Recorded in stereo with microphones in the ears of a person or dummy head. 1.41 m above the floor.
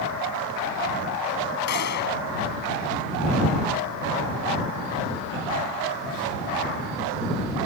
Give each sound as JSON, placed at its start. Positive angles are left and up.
{"t": 1.7, "sound": "a gunshot", "side_deg": 55}